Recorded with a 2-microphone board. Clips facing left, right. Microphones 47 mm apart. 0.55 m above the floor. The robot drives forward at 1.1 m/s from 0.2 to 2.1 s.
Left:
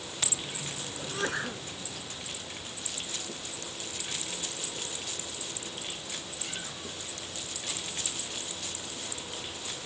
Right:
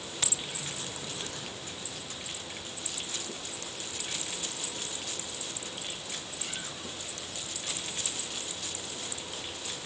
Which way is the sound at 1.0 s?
55° left (ahead or behind).